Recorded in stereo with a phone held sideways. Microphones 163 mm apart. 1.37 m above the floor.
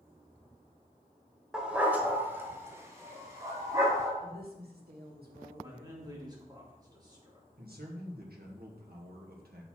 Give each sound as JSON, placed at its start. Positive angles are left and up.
{"t": 1.5, "sound": "a dog barking", "side_deg": -5, "distance_m": 1.2}
{"t": 4.2, "sound": "a woman speaking", "side_deg": -85, "distance_m": 2.0}
{"t": 5.6, "sound": "a man speaking", "side_deg": -25, "distance_m": 2.5}
{"t": 7.6, "sound": "a man speaking", "side_deg": -80, "distance_m": 1.8}